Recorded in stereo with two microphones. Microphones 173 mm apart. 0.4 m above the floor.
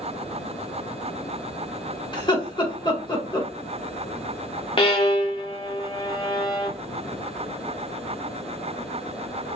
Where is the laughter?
30° left (ahead or behind), 1.1 m.